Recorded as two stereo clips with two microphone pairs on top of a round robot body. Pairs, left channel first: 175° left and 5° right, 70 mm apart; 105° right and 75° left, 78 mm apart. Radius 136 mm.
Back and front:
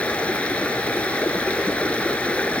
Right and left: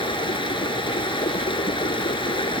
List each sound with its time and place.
0.0 s running water: 110° right